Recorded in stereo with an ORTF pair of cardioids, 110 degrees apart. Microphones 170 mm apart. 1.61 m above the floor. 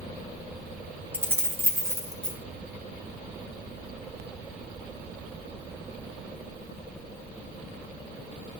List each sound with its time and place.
1.1 s keys jangling: 10° right, 1.4 m; by 2.4 s 20° right, 2.5 m